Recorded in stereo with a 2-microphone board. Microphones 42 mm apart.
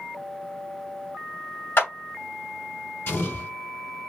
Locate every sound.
1.8 s a clap: 60° left (ahead or behind), 2.5 m
3.1 s an explosion: 55° left (ahead or behind), 2.5 m